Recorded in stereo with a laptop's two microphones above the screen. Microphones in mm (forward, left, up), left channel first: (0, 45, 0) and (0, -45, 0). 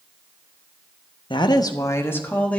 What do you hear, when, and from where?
1.3 s a woman speaking: 60° left (ahead or behind), 0.8 m; by 2.6 s 15° left (ahead or behind), 1.4 m